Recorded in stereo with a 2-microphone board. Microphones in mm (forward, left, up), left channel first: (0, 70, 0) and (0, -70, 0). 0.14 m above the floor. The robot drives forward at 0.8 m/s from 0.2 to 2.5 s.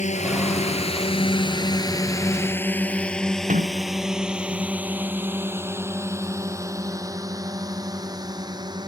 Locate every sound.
0.0 s a drone: 60° left (ahead or behind); by 8.9 s 30° right (ahead or behind)
3.5 s a sliding door: 70° right (ahead or behind)